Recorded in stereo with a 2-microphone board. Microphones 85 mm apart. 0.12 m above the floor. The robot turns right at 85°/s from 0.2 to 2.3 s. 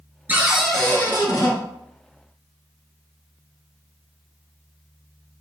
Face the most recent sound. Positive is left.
turn(degrees=140)